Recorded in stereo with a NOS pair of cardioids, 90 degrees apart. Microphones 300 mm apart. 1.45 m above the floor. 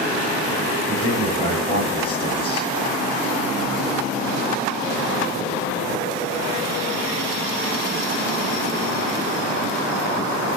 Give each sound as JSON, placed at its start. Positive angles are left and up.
{"t": 0.9, "sound": "a man speaking", "azimuth_deg": 15, "distance_m": 9.0}